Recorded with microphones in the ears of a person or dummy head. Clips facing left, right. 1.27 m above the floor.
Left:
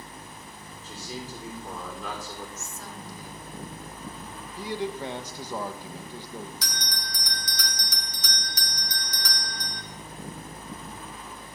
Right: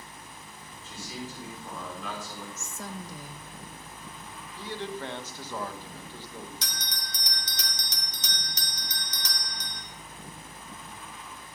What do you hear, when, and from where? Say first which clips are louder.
0.8 s a man speaking: left 1 dB; 35° left (ahead or behind), 4.5 m
2.6 s a woman speaking: right 1 dB; 45° right (ahead or behind), 1.2 m
4.6 s a man speaking: left 5 dB; 15° left (ahead or behind), 1.0 m
6.6 s a bell: left 4 dB; 20° right (ahead or behind), 1.1 m